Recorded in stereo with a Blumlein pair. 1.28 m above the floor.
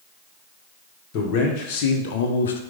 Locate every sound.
1.1 s a man speaking: 40° left, 1.2 m; by 2.6 s 65° left, 0.5 m